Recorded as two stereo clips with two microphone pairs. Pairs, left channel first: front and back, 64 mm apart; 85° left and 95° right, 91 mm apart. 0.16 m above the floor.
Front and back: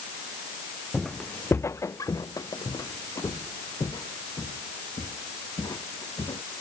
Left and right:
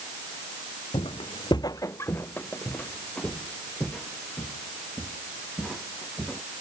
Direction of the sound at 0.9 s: 90° left.